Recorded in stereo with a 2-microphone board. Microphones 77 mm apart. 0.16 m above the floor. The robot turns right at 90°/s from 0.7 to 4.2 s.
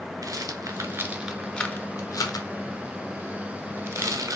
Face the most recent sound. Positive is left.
turn(degrees=-60)  # may be behind; listen again after turning